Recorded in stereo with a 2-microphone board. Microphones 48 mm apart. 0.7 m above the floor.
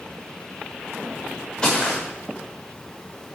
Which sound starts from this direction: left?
Footsteps, at 1.6 s.